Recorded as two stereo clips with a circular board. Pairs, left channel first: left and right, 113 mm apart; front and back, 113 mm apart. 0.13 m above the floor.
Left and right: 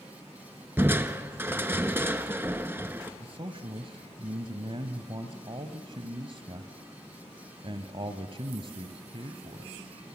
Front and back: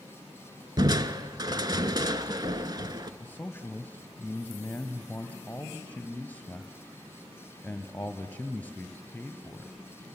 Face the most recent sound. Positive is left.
turn(degrees=-70)